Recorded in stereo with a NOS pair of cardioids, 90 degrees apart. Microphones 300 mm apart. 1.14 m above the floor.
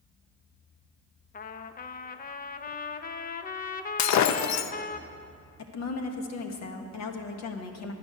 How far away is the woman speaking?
About 1.4 m.